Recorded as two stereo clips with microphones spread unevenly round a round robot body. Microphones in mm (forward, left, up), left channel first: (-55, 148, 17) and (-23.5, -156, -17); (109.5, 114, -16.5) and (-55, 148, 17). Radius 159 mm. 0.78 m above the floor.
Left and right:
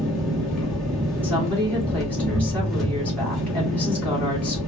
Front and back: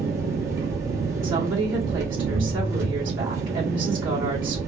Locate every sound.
0.0 s an engine running: 170° right, 1.3 m
1.2 s a woman speaking: 175° right, 2.5 m